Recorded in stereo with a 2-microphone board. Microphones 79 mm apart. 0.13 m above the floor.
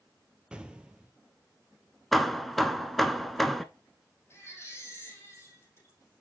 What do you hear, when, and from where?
0.5 s an explosion: 15° right (ahead or behind), 0.8 m
2.1 s hammering: centre (ahead or behind), 0.8 m
4.3 s a baby crying: 35° left (ahead or behind), 4.5 m